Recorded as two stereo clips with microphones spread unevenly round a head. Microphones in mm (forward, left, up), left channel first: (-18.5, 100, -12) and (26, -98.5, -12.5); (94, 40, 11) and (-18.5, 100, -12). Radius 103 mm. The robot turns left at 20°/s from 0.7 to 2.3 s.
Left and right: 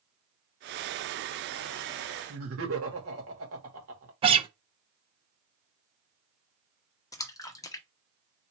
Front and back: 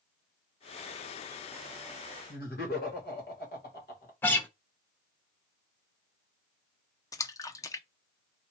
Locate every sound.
2.3 s laughter: 55° right, 2.5 m
4.2 s a guitar: 55° right, 0.8 m
7.1 s a splash: 35° left, 0.7 m